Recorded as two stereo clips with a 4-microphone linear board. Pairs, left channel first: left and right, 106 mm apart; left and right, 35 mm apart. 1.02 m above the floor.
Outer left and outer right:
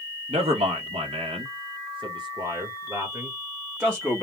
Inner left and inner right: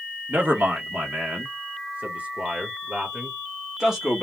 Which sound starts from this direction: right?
A man speaking, at 0.3 s.